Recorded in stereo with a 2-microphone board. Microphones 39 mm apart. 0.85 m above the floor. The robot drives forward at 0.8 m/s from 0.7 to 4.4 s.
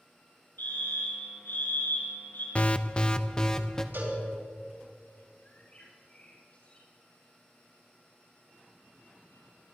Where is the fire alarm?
75° left (ahead or behind), 6 m; by 2.5 s 70° left (ahead or behind), 6 m.